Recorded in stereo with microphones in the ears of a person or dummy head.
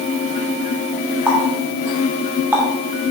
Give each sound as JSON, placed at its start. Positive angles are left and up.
{"t": 1.3, "sound": "a running tap", "side_deg": -5, "distance_m": 2.5}